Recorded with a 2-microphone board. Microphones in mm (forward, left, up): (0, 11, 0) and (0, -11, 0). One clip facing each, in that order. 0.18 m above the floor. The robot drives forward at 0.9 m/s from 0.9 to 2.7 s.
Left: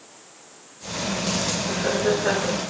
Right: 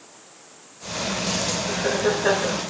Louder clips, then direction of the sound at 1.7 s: Even; 20° right (ahead or behind).